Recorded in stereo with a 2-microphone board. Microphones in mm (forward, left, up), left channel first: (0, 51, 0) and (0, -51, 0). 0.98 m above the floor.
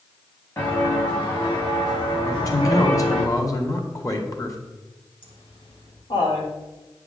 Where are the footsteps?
30° left (ahead or behind), 5 m; by 3.2 s 60° left (ahead or behind), 6 m.